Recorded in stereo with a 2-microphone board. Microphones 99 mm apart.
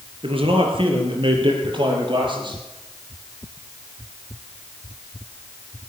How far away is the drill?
I don't hear a drill.